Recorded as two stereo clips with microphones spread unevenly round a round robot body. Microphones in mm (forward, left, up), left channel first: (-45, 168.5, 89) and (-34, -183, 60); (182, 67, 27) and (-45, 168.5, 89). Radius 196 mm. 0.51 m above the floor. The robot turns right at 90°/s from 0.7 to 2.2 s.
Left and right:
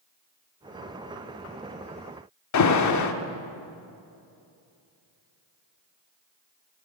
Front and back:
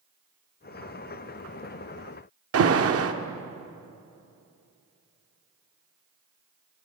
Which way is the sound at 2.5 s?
125° left.